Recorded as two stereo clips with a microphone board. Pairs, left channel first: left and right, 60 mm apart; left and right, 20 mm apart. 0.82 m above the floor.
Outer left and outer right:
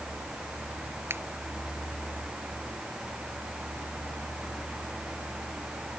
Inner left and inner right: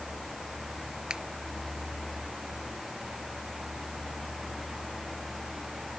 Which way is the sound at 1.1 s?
40° right (ahead or behind).